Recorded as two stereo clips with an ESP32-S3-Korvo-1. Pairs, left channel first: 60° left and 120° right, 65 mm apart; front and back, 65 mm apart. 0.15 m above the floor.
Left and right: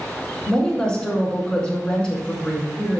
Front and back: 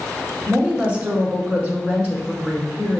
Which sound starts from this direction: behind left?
A woman speaking, at 0.5 s.